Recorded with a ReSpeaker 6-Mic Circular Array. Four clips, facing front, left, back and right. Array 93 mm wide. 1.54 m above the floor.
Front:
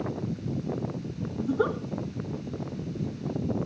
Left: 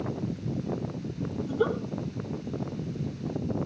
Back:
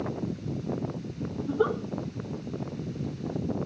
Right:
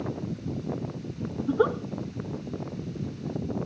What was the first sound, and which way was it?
A giggle, 80° right.